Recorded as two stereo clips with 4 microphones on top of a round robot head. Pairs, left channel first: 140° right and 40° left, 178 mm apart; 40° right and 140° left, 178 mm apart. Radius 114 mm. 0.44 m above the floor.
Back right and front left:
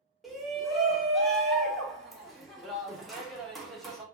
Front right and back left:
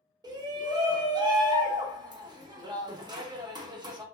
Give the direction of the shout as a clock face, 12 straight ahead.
7 o'clock.